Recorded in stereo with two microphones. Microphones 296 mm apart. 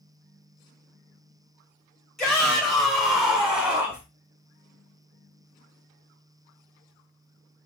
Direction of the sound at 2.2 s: Centre (ahead or behind).